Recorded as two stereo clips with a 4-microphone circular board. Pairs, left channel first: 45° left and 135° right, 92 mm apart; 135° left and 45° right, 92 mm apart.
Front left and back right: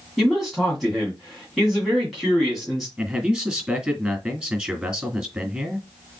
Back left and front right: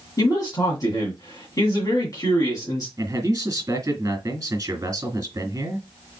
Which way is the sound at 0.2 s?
135° left.